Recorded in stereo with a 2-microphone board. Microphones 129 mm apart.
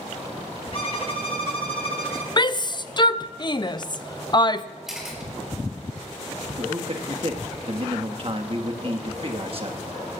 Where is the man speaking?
45° right (ahead or behind), 1.6 m.